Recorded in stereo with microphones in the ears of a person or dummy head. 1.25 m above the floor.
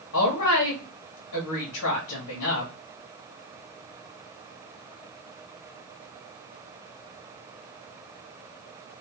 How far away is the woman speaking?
About 1.7 m.